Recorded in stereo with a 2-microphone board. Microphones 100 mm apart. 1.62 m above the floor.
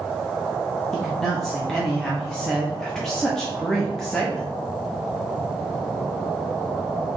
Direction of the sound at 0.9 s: 5° left (ahead or behind).